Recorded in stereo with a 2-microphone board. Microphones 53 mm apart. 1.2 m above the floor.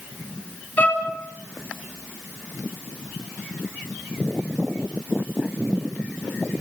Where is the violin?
35° left (ahead or behind), 3.5 m.